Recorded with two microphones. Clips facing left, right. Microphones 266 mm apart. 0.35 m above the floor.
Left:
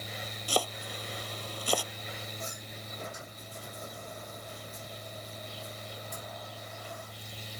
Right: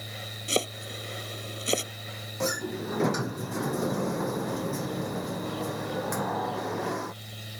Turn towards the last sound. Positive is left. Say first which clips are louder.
# right 15 dB
turn(degrees=-85)